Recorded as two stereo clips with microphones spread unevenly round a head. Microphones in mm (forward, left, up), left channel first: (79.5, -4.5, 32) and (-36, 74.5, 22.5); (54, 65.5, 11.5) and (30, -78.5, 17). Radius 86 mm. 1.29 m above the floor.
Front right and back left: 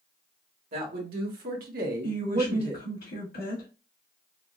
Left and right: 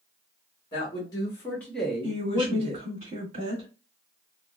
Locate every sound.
0.7 s a man speaking: 145° left, 1.3 m; by 2.9 s 150° right, 0.7 m
2.0 s a woman speaking: 55° right, 1.8 m